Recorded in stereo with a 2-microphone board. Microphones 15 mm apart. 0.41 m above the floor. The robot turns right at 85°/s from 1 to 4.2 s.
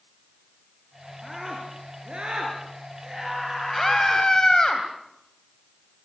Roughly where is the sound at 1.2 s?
Behind.